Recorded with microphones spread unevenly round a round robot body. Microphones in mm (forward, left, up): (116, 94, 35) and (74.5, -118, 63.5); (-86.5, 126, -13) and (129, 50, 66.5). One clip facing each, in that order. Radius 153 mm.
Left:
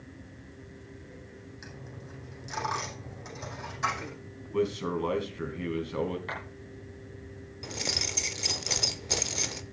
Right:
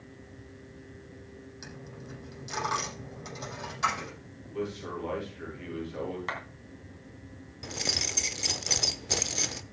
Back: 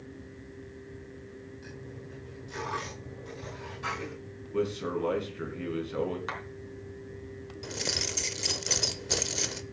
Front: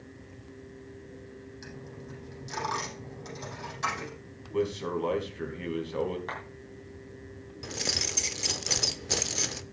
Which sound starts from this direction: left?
A man speaking, at 4.5 s.